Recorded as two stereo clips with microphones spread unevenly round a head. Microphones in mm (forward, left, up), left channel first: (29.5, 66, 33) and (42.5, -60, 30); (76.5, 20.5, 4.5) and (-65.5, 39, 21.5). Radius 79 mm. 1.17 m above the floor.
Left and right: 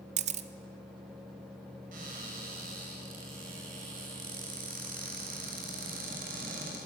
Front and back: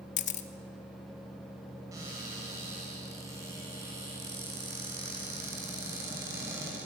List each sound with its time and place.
0.2 s a camera shutter: 55° right, 1.1 m
1.9 s a cupboard door: 115° right, 6.5 m